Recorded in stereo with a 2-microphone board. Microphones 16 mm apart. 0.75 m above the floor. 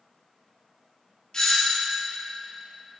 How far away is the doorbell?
About 1.5 m.